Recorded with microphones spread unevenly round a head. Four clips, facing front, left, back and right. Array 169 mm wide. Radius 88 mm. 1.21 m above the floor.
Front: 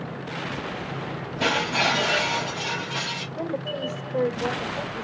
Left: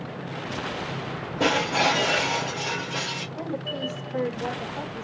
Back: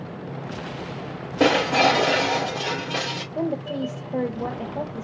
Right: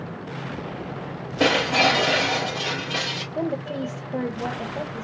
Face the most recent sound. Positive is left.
turn(degrees=-150)